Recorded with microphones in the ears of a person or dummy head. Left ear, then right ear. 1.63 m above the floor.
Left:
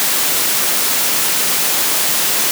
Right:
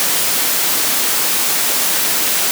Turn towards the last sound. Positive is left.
No sound to turn to.